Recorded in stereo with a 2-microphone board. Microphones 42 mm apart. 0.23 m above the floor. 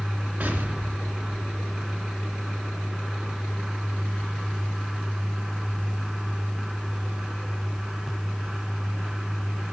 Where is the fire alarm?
I don't hear a fire alarm.